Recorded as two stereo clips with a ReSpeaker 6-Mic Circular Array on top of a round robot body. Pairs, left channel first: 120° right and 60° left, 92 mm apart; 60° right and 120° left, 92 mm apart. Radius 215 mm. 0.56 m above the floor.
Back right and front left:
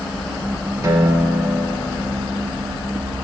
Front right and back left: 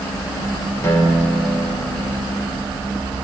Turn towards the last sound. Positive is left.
turn(degrees=5)